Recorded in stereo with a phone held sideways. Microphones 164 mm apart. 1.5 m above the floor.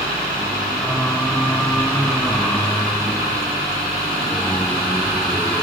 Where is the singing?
5° left (ahead or behind).